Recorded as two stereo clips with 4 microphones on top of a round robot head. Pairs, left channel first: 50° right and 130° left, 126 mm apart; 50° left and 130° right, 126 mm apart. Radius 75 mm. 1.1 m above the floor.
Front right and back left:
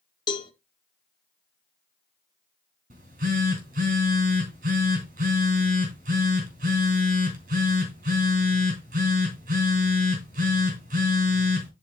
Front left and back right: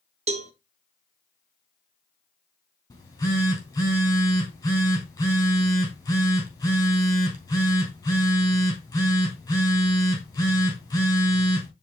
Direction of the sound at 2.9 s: 110° left.